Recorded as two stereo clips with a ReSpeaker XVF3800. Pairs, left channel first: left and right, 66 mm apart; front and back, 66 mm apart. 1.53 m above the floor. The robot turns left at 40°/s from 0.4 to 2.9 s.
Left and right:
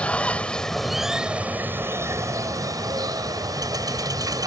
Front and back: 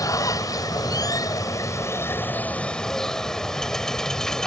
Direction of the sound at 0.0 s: 20° left.